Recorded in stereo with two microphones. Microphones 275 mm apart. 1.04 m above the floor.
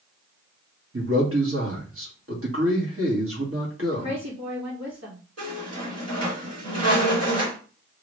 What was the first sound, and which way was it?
A man speaking, 55° right (ahead or behind).